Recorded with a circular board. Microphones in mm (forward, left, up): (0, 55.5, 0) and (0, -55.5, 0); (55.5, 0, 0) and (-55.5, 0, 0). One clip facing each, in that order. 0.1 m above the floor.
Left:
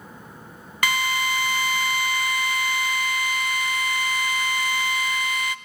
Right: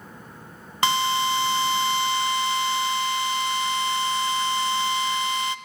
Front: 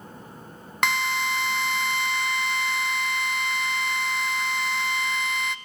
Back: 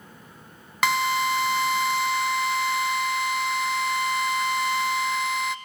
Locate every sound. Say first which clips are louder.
0.8 s a drill: right 3 dB, back 3 dB; 95° right, 0.7 m